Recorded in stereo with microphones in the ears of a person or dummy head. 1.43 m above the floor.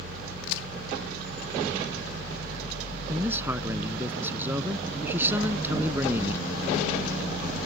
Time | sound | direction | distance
0.4 | a crack | 70° left (ahead or behind) | ?
3.1 | a man speaking | 15° right (ahead or behind) | ?